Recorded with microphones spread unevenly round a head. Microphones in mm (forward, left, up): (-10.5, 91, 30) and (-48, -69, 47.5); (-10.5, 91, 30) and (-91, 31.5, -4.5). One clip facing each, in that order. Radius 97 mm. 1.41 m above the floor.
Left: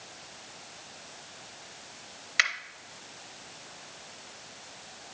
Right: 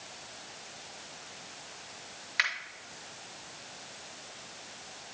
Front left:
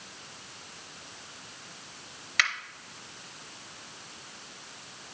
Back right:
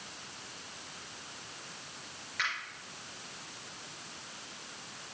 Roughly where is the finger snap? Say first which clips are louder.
Left 3 dB, front left 6 dB; ahead.